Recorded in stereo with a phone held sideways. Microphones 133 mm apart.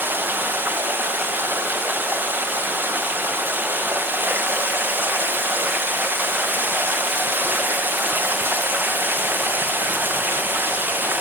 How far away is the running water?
About 0.9 m.